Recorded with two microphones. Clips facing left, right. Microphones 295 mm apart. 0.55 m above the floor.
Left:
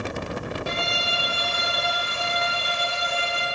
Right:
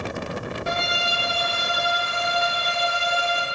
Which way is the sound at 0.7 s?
45° left (ahead or behind).